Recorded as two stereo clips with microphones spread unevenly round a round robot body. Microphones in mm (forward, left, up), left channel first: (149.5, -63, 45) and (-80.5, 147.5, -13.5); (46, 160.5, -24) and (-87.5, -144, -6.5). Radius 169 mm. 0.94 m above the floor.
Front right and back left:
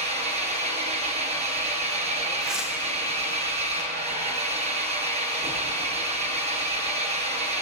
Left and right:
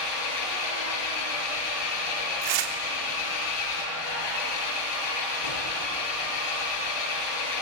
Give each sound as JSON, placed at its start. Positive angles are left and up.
{"t": 0.0, "sound": "an engine running", "azimuth_deg": 65, "distance_m": 4.5}
{"t": 2.4, "sound": "tearing paper", "azimuth_deg": -135, "distance_m": 1.6}